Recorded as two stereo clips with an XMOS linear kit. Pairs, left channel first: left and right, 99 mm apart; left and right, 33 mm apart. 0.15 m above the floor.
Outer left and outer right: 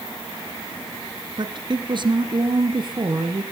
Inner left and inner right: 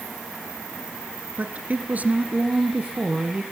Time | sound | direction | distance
1.4 | a woman speaking | 50° right (ahead or behind) | 1.6 m